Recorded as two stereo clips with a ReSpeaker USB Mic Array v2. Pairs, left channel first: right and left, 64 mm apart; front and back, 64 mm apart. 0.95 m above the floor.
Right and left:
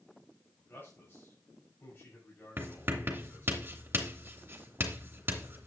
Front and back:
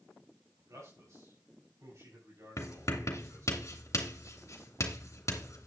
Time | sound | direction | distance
0.6 | a man speaking | 145° right | 6.5 m
2.6 | writing | 35° left | 2.5 m